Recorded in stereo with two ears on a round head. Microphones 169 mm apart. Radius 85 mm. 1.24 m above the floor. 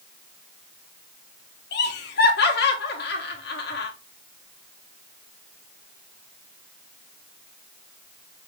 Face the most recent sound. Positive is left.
turn(degrees=60)  # may be behind; listen again after turning